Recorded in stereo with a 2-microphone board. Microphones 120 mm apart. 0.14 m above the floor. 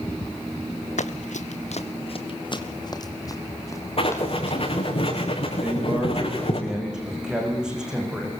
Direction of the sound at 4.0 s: 50° left (ahead or behind).